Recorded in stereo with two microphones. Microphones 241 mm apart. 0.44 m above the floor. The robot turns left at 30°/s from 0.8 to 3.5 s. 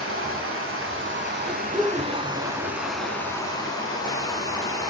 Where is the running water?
115° right, 0.7 m; by 4.9 s 165° left, 0.7 m.